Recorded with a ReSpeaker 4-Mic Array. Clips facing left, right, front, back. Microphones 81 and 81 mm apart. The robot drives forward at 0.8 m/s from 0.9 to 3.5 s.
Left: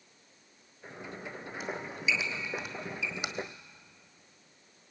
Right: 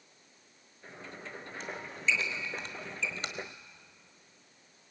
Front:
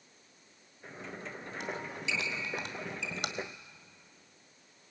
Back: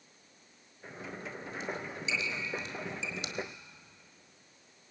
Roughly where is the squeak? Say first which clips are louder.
Left 1 dB, even; ahead.